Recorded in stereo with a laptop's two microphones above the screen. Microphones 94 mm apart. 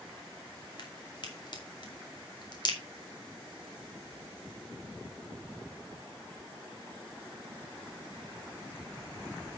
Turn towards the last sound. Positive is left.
turn(degrees=50)  # may be behind; listen again after turning